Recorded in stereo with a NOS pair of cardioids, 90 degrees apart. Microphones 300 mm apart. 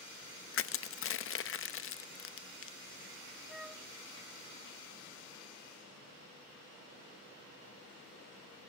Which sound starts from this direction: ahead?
A flute, at 3.5 s.